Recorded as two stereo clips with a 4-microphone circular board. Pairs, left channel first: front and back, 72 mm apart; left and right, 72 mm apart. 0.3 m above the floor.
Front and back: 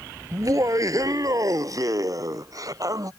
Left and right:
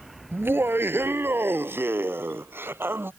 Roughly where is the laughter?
Behind right.